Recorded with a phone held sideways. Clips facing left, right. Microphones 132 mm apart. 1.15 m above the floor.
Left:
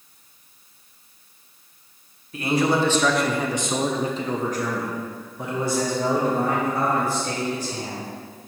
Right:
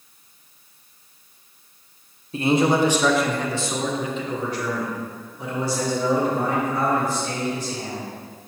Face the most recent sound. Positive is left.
turn(degrees=55)  # may be behind; listen again after turning